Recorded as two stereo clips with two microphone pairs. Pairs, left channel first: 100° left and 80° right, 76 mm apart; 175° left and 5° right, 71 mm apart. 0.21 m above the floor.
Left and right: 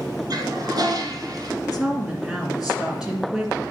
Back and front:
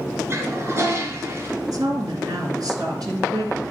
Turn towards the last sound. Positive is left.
turn(degrees=5)